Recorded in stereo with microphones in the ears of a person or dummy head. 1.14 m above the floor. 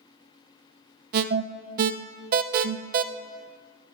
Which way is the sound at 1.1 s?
50° right (ahead or behind).